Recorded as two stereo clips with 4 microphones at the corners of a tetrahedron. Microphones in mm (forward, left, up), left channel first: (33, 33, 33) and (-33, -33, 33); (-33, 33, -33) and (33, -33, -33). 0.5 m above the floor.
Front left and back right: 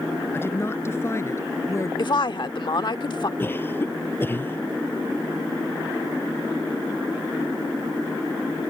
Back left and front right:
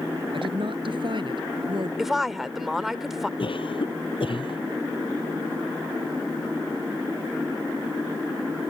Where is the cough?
110° left.